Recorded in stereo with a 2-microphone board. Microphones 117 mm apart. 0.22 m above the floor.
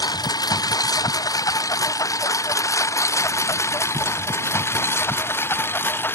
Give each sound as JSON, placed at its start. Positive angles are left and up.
{"t": 0.0, "sound": "a lawn mower", "side_deg": 35}